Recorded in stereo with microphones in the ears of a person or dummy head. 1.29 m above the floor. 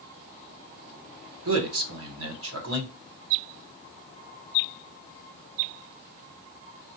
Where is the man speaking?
75° right (ahead or behind), 1.4 m.